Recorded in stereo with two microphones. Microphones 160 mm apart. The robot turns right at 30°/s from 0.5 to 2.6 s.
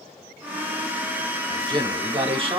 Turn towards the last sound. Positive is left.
turn(degrees=-100)